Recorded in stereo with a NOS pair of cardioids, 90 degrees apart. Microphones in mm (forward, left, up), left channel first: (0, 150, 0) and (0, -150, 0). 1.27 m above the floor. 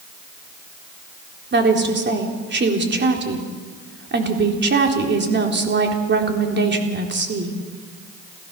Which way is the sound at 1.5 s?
35° right.